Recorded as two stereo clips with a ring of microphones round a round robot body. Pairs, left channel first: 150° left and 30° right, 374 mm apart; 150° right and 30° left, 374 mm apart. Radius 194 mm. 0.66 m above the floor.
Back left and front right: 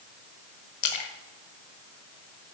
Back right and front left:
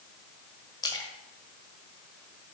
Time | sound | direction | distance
0.8 | a splash | 130° left | 1.1 m